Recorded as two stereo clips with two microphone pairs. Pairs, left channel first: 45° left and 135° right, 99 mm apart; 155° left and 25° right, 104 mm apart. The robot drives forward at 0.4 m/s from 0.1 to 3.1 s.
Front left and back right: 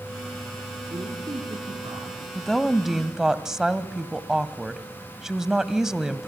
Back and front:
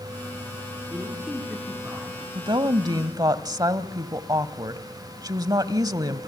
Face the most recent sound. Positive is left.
turn(degrees=-50)